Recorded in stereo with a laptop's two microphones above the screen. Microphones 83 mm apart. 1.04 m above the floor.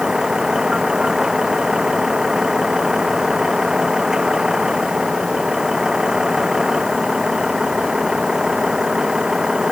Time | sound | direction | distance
0.0 | a vehicle | 5° right (ahead or behind) | ?